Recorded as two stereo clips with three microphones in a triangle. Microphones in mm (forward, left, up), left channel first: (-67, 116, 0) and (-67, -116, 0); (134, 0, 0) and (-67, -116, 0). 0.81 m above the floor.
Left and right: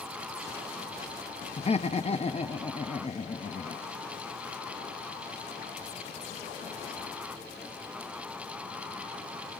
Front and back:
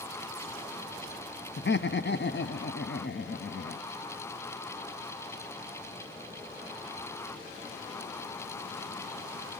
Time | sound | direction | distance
1.6 | laughter | 35° left | 0.8 m